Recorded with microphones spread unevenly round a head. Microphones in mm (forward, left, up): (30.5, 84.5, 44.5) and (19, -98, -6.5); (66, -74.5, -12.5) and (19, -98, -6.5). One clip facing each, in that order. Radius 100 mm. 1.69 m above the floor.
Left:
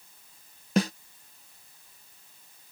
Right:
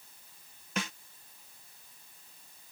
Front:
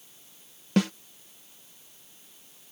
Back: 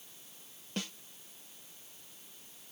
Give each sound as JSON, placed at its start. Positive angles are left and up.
{"t": 0.8, "sound": "a snare drum", "azimuth_deg": 45}